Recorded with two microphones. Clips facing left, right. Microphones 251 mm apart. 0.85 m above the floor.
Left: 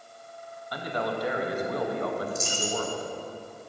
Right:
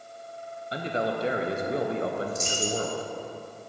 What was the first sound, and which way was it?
A man speaking, 25° right (ahead or behind).